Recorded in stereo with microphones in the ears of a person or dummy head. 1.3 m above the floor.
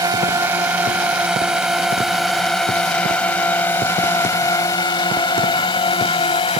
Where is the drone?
10° right (ahead or behind); by 6.6 s 25° left (ahead or behind).